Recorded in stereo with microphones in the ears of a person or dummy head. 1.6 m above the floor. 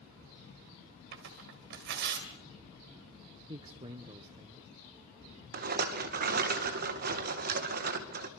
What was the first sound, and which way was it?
Tearing paper, 60° right (ahead or behind).